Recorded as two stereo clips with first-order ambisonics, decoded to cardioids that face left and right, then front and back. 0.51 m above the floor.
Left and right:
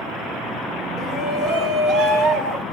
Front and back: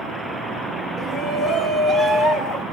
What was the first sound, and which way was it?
A shout, 55° right.